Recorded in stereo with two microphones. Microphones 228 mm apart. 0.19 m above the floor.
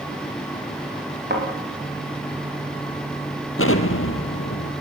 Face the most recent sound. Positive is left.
turn(degrees=75)  # may be behind; listen again after turning